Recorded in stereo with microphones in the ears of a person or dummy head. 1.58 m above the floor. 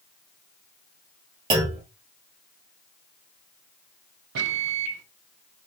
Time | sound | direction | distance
1.5 | a clunk | 25° right (ahead or behind) | 0.8 m
4.3 | a microwave | 70° right (ahead or behind) | 0.5 m